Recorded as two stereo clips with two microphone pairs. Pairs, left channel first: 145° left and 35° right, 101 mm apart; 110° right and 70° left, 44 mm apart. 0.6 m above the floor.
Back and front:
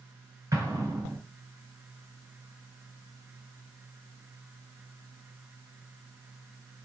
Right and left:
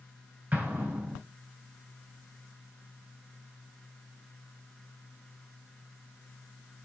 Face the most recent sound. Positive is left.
turn(degrees=25)